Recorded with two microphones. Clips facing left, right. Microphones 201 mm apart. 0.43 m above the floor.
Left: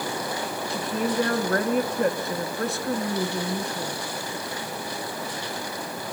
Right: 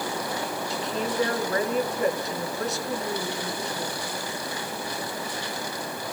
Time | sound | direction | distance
0.7 | a woman speaking | 55° left (ahead or behind) | 4 m